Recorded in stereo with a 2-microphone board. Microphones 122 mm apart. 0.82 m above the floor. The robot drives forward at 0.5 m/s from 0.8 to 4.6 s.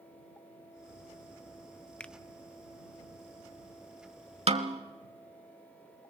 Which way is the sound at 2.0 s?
10° left (ahead or behind).